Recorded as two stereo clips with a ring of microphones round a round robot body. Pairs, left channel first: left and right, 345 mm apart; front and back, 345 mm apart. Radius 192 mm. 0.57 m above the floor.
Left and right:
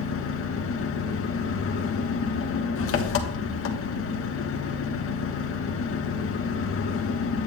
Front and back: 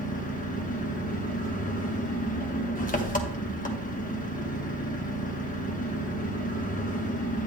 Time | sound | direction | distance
0.0 | an engine running | 60° left | 1.2 m